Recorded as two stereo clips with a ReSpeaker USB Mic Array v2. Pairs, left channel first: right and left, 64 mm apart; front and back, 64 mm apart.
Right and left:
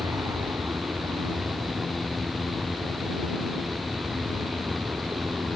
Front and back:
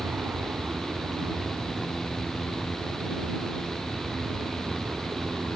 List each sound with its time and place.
0.0 s an aircraft: 120° left; by 5.6 s 125° left